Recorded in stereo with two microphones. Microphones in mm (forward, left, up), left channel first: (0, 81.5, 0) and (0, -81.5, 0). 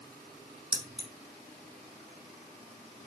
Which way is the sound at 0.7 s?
30° right (ahead or behind).